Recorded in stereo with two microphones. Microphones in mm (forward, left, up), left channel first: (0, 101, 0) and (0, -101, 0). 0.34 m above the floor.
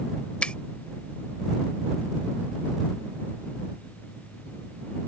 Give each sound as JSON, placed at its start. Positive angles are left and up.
{"t": 0.4, "sound": "a finger snap", "side_deg": 5}